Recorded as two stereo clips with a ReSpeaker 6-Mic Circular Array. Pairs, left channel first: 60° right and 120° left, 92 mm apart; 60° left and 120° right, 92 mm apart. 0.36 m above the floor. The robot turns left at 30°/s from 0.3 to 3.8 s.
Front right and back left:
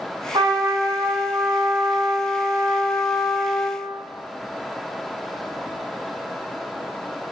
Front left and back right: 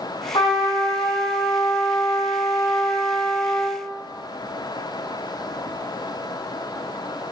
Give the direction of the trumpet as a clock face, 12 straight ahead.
9 o'clock.